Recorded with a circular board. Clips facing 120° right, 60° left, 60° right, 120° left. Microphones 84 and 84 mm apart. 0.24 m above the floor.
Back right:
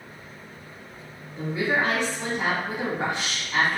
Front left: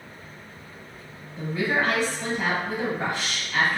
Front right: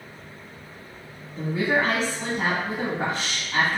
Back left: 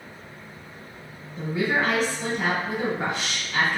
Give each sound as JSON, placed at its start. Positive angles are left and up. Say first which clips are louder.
{"t": 1.4, "sound": "a woman speaking", "louder": "even, front right 1 dB", "azimuth_deg": -65, "distance_m": 1.1}